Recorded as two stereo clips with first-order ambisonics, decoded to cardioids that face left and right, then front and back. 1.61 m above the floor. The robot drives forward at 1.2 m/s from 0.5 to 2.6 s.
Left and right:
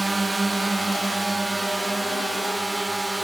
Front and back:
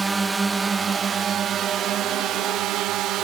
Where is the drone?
145° right; by 3.2 s 170° right.